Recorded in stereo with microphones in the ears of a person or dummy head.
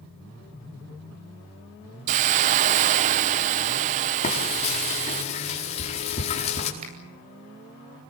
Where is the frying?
35° left (ahead or behind), 4.5 m.